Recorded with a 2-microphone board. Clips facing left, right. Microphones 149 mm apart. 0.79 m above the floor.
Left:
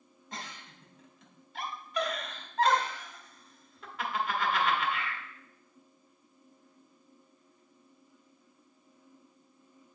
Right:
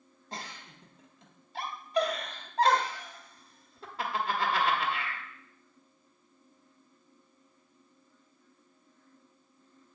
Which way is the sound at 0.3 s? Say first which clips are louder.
Right 1 dB; 30° right (ahead or behind).